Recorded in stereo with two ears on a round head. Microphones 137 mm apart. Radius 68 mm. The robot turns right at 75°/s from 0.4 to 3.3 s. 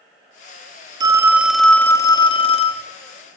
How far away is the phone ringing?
About 0.8 m.